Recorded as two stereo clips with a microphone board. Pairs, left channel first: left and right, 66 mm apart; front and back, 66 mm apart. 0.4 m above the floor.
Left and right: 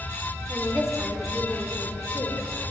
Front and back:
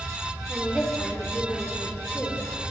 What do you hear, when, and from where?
0.5 s a woman speaking: 70° right, 1.2 m; by 2.4 s 70° left, 1.5 m